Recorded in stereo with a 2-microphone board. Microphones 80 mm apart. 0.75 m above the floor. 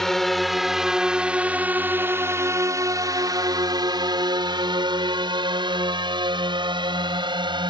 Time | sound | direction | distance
0.0 | a drone | 5° left (ahead or behind) | ?